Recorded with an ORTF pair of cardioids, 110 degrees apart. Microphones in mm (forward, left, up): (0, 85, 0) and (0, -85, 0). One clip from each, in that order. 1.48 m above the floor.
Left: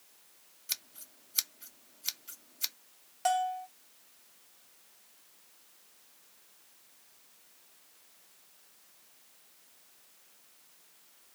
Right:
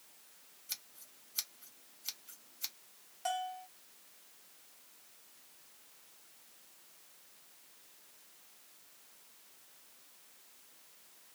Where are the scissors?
40° left, 0.7 m.